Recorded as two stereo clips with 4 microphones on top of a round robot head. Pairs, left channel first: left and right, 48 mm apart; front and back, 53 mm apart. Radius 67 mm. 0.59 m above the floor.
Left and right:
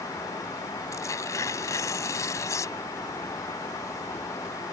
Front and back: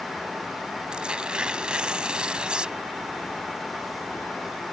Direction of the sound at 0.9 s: 105° left.